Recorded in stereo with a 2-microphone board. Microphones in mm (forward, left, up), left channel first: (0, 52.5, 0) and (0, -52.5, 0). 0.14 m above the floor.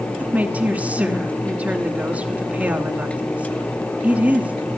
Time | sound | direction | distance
0.2 | a woman speaking | 15° right (ahead or behind) | 1.1 m